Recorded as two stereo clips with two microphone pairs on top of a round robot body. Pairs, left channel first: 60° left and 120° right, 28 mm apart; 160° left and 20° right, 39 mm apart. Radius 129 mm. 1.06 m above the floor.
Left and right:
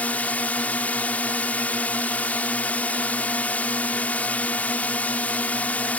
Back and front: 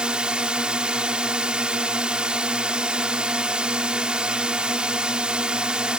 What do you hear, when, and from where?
0.0 s a drone: 45° left